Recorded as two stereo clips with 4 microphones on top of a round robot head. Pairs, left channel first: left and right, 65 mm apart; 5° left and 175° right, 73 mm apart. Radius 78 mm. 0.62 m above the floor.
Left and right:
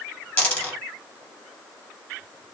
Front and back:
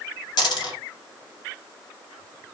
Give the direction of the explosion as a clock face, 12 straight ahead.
No explosion in this recording.